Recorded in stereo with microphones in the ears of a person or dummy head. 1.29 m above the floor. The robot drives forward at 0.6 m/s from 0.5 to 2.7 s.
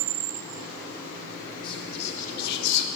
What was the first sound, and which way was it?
Whispering, 30° left (ahead or behind).